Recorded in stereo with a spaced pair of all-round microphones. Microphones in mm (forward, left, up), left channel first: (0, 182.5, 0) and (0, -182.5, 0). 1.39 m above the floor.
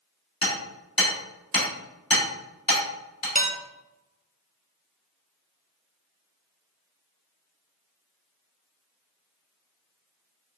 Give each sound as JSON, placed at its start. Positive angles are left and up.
{"t": 0.4, "sound": "hammering", "side_deg": 65, "distance_m": 1.7}
{"t": 3.4, "sound": "dishes clattering", "side_deg": -20, "distance_m": 0.5}